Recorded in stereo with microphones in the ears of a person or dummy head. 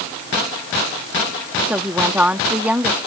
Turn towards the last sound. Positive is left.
turn(degrees=-5)  # may be behind; listen again after turning